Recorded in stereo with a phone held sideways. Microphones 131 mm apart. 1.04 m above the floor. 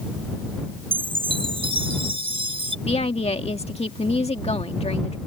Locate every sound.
0.9 s a chime: 45° right (ahead or behind)
2.9 s a woman speaking: 50° left (ahead or behind)